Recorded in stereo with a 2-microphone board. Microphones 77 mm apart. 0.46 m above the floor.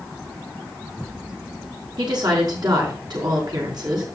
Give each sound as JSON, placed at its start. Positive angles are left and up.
{"t": 2.0, "sound": "a woman speaking", "side_deg": -60, "distance_m": 4.5}